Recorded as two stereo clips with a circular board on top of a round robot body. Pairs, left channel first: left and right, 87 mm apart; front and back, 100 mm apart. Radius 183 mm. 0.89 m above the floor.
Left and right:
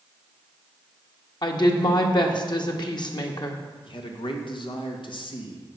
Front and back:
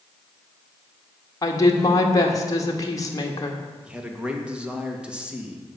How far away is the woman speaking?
About 1.8 m.